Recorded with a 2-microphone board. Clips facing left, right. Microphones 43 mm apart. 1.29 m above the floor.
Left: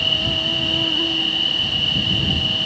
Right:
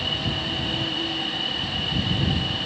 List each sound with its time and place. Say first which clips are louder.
0.0 s an insect: left 7 dB; 55° left (ahead or behind)